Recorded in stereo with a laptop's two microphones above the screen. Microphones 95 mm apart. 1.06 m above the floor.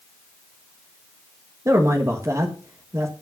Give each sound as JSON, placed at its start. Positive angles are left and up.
{"t": 1.6, "sound": "a man speaking", "side_deg": -30, "distance_m": 1.6}